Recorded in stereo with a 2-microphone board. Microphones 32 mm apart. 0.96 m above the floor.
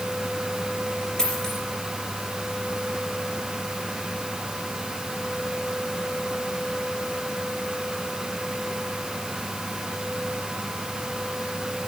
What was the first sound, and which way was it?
A dropped coin, 20° left (ahead or behind).